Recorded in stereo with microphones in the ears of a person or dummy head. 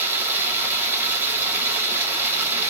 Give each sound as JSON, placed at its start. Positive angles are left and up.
{"t": 0.0, "sound": "running water", "side_deg": -15, "distance_m": 1.0}